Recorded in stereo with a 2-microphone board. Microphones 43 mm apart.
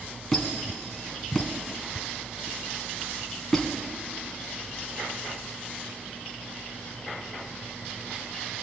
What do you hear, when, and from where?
0.3 s a squeak: 5° left (ahead or behind), 1.7 m